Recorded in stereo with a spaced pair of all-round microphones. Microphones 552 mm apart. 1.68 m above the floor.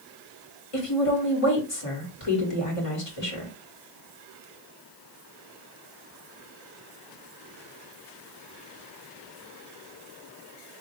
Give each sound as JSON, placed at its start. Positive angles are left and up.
{"t": 0.7, "sound": "a woman speaking", "side_deg": 70, "distance_m": 1.9}